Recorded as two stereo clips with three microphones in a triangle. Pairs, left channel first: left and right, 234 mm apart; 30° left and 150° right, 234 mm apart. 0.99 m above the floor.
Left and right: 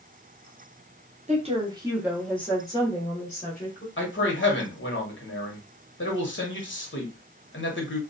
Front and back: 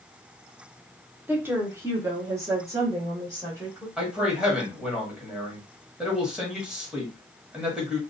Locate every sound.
1.3 s a woman speaking: 75° right, 0.8 m; by 3.9 s 135° left, 1.2 m
4.0 s a man speaking: 125° left, 0.9 m